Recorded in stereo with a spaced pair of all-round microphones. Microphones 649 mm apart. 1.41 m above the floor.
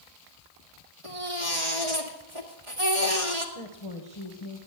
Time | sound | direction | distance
1.0 | a baby crying | 50° right (ahead or behind) | 2.0 m
3.5 | a woman speaking | 40° left (ahead or behind) | 1.4 m